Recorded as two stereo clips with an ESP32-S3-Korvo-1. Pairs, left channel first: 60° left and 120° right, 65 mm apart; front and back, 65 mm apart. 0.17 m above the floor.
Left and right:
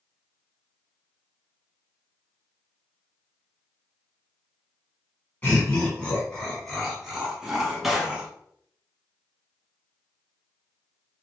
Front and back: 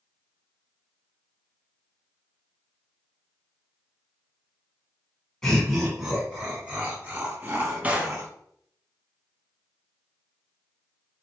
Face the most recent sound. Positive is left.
turn(degrees=160)